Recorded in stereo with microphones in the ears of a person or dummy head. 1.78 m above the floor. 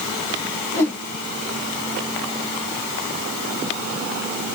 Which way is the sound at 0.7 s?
10° left (ahead or behind).